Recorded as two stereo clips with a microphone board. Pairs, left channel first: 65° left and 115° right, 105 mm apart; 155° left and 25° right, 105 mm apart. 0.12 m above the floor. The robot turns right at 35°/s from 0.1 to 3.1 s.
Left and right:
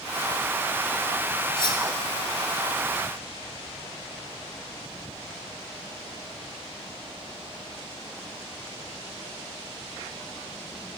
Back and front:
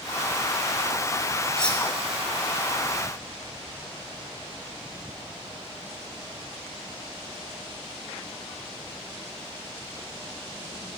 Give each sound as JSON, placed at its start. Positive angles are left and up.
{"t": 1.6, "sound": "cutlery clinking", "azimuth_deg": 75, "distance_m": 0.9}